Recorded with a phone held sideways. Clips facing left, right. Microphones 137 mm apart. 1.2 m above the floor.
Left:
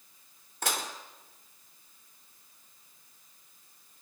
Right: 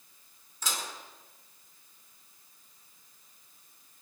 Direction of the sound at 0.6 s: 60° left (ahead or behind).